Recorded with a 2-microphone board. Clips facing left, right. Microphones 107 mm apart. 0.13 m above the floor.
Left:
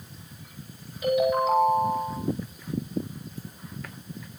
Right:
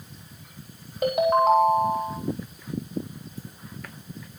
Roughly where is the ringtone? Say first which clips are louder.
Right 3 dB; right.